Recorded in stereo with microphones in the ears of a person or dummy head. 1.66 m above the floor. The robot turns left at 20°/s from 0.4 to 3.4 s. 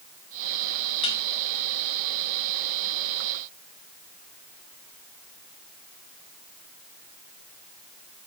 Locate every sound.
1.0 s dishes clattering: 30° left (ahead or behind), 1.7 m